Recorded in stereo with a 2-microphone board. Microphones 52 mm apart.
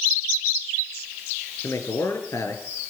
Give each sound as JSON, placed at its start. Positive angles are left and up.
{"t": 1.6, "sound": "a man speaking", "side_deg": 65, "distance_m": 4.5}